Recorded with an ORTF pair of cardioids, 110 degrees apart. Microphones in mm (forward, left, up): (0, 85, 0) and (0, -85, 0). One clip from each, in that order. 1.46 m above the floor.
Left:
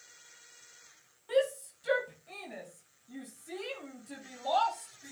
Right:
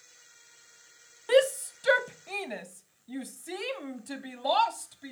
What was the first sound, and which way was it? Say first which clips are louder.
A shout: right 6 dB; 70° right.